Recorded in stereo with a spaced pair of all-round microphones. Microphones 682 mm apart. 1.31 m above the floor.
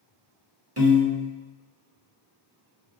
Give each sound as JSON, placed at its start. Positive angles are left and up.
{"t": 0.8, "sound": "a piano", "side_deg": -20, "distance_m": 0.7}